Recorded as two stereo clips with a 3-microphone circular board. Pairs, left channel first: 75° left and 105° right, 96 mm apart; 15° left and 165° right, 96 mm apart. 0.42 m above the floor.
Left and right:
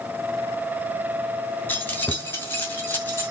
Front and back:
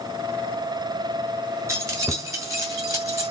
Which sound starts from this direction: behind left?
Keys jangling, at 1.7 s.